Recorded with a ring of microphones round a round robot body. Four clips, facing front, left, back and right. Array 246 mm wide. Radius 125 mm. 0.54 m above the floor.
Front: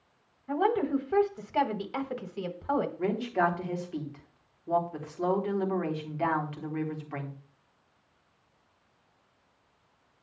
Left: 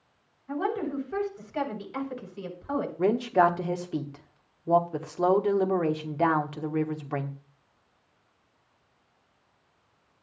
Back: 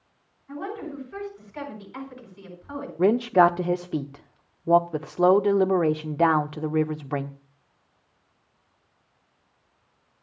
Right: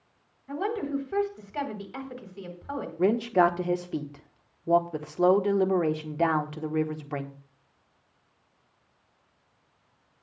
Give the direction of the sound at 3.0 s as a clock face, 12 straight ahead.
6 o'clock.